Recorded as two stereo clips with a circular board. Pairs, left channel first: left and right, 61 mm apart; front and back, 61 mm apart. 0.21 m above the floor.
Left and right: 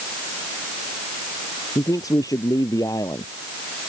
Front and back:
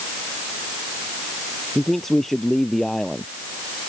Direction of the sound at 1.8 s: 85° left.